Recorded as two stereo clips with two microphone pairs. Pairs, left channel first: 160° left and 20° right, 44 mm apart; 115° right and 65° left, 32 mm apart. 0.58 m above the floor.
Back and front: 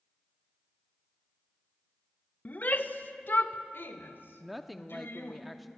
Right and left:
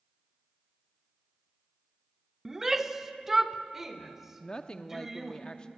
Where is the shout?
135° left, 1.1 m; by 5.4 s 145° left, 2.5 m.